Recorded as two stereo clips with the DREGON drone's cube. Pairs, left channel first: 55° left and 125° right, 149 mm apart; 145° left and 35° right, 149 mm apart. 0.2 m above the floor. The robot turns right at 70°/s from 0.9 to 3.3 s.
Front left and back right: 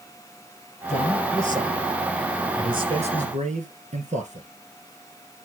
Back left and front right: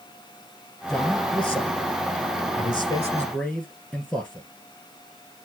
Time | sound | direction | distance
0.9 | a man speaking | 55° left | 2.5 m